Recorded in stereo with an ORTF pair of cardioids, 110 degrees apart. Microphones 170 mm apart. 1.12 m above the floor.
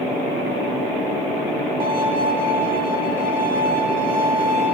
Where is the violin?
35° right, 2.5 m.